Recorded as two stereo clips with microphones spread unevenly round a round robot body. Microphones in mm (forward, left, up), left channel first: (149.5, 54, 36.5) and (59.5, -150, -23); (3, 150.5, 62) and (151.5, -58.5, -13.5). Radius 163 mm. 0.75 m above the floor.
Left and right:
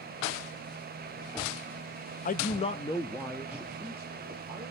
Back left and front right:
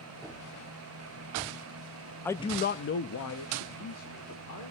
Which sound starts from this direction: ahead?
A man speaking, at 2.2 s.